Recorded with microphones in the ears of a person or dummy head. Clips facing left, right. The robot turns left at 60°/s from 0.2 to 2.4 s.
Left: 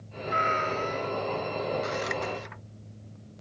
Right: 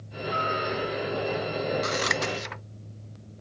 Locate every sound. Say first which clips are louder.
0.3 s a cat meowing: even; 160° left; by 1.3 s 100° left
1.8 s scissors: right 2 dB; 70° right (ahead or behind)